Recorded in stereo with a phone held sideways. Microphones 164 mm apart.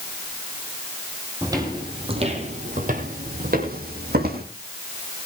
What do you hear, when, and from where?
1.4 s footsteps: 20° right (ahead or behind), 2.5 m; by 4.4 s 70° right (ahead or behind), 3.5 m